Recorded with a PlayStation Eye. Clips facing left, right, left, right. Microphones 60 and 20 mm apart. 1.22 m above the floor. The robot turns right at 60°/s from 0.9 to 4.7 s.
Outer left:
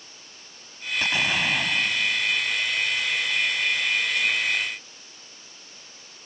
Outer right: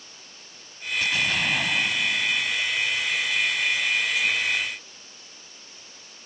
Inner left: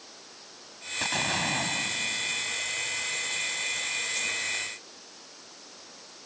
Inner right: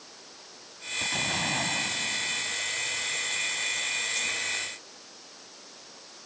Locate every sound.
1.0 s an explosion: 140° left; by 2.5 s 125° right